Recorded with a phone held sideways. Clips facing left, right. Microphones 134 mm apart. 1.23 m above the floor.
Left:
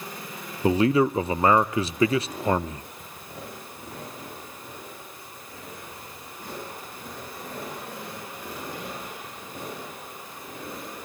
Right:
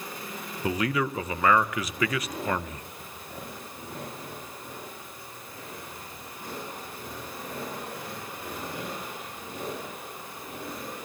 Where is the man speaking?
30° left (ahead or behind), 0.6 m.